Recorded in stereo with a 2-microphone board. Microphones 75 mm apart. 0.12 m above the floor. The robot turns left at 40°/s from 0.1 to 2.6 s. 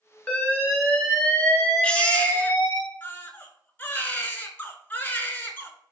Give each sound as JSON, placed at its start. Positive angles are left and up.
{"t": 0.3, "sound": "an alarm", "side_deg": 15, "distance_m": 1.4}
{"t": 1.8, "sound": "a baby crying", "azimuth_deg": 150, "distance_m": 0.5}